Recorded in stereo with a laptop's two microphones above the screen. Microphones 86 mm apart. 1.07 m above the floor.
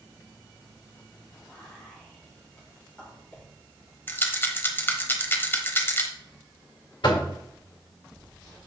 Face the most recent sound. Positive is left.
turn(degrees=65)  # may be behind; listen again after turning